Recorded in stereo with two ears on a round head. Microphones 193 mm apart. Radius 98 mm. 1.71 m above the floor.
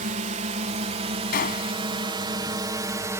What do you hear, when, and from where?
0.0 s a drone: 35° right (ahead or behind); by 3.2 s 15° right (ahead or behind)
1.3 s a gunshot: 40° left (ahead or behind)